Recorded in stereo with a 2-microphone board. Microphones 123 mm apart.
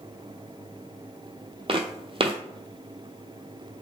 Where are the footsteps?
45° right (ahead or behind), 0.5 m.